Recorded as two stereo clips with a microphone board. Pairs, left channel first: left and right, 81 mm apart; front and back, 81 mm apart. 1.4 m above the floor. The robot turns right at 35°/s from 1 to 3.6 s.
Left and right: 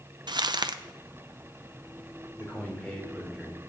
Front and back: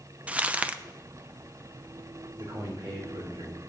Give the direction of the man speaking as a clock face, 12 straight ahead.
7 o'clock.